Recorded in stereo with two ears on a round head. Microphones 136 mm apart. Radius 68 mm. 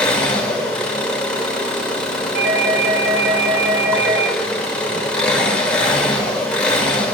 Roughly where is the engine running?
Centre.